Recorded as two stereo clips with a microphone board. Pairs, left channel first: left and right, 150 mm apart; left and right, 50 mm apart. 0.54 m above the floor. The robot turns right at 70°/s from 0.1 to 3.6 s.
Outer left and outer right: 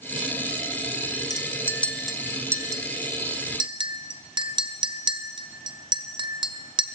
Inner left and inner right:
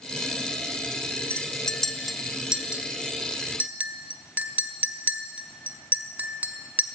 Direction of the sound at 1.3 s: 25° left (ahead or behind).